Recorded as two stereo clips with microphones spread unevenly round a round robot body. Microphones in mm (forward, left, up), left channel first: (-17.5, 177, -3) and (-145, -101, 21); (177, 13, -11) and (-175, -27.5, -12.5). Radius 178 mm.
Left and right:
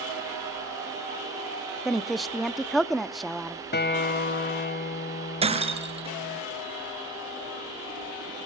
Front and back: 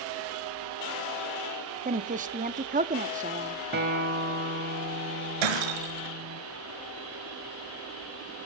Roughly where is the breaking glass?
Behind.